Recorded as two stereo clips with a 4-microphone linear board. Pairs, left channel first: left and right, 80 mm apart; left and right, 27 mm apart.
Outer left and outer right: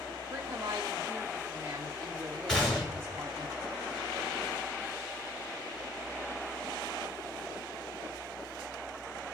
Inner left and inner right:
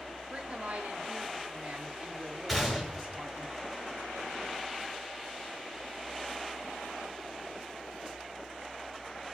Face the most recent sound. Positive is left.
turn(degrees=5)  # may be behind; listen again after turning